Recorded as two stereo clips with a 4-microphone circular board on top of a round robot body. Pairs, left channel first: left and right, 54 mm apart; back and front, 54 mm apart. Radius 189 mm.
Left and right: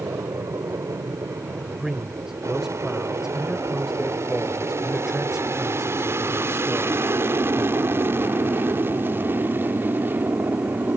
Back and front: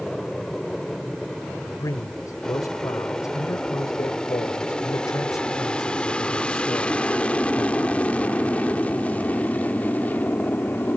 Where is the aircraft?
100° right; by 11.0 s 130° right.